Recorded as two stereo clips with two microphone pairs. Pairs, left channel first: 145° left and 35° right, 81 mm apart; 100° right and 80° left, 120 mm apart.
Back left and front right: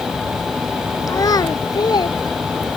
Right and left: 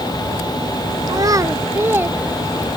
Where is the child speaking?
115° left; by 2.8 s 160° left.